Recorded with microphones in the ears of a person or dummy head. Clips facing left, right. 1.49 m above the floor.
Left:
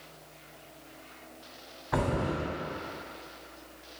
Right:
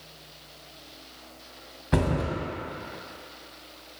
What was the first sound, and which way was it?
A thud, 40° right (ahead or behind).